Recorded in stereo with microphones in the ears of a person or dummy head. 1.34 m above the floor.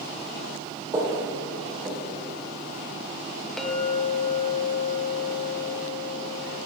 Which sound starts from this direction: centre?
A clink, at 3.6 s.